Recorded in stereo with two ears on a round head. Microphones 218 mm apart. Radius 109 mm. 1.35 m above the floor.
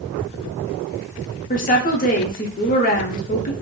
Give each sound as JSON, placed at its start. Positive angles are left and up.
{"t": 1.5, "sound": "a woman speaking", "side_deg": 35, "distance_m": 0.5}